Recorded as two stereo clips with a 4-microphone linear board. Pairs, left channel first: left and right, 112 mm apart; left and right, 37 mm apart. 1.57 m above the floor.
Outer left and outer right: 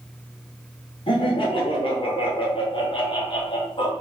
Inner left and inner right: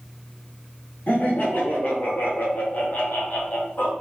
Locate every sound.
1.1 s laughter: 50° left (ahead or behind), 1.0 m